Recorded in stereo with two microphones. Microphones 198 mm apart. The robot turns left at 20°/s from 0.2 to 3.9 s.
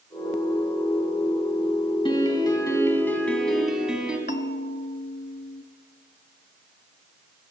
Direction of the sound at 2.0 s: 35° left.